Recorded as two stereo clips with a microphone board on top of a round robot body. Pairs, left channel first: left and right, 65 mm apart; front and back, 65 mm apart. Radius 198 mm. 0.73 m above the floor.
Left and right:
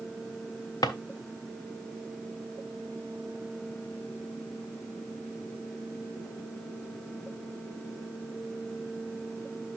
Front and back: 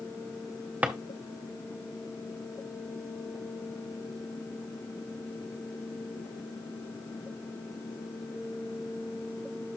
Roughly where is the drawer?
Left.